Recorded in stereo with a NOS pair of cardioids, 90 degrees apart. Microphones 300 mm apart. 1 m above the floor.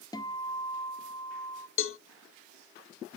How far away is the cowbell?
About 0.5 m.